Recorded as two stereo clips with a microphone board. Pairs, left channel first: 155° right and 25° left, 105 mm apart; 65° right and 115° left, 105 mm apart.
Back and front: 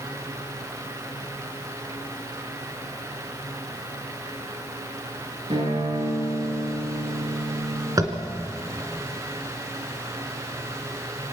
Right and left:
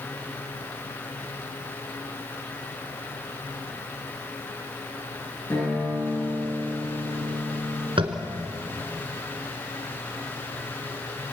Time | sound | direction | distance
5.5 | a guitar | straight ahead | 9.5 m
8.0 | tapping | 80° left | 2 m